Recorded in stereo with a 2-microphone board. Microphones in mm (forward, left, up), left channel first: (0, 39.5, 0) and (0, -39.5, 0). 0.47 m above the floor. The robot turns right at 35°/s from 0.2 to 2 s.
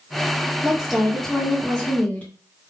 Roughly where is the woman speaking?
Ahead.